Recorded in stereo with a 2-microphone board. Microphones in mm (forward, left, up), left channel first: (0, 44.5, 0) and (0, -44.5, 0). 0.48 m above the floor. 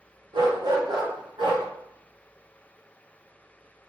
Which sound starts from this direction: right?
A dog barking, at 0.3 s.